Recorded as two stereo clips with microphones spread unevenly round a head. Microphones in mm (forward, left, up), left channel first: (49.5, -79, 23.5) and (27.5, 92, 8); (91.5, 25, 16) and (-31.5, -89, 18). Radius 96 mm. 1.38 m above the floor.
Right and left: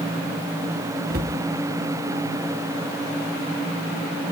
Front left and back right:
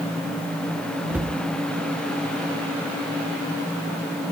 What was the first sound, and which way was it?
A cupboard door, 140° left.